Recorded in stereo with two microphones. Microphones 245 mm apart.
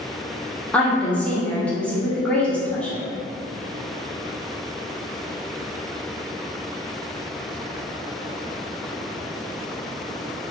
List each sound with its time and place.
0.7 s a woman speaking: 5° left (ahead or behind), 0.8 m